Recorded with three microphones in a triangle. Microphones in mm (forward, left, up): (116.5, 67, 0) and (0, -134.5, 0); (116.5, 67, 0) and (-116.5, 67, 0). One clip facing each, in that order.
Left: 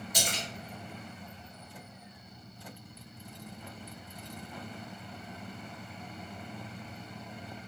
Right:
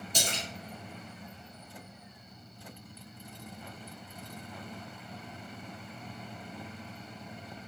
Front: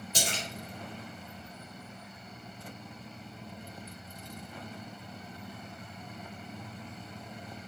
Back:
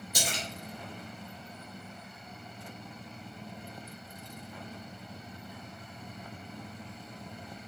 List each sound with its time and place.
0.1 s a splash: 60° right, 2.5 m